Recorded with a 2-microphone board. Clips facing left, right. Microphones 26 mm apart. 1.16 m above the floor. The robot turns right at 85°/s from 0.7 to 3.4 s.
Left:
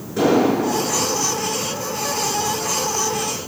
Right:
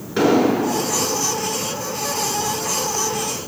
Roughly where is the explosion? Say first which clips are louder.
Even; right.